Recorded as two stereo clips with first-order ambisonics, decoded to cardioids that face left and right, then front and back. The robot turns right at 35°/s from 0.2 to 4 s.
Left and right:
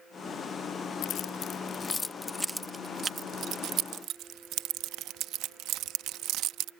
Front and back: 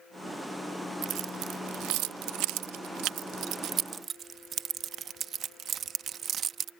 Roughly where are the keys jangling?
Behind left.